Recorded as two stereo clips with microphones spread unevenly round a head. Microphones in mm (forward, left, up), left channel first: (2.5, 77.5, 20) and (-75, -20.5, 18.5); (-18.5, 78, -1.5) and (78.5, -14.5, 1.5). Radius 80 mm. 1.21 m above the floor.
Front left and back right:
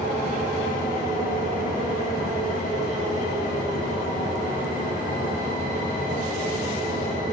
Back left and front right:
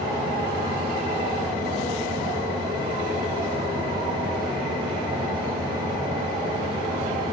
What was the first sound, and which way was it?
A fan, 15° left.